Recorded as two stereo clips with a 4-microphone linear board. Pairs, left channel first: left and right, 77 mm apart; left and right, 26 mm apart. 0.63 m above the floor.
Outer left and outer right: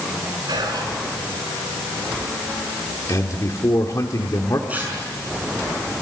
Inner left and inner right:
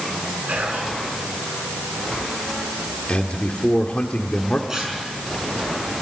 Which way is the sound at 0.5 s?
70° right (ahead or behind).